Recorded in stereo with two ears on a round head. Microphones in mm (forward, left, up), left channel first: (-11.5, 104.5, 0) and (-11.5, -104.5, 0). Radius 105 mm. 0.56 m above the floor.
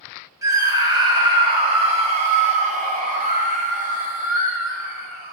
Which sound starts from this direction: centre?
A scream, at 0.4 s.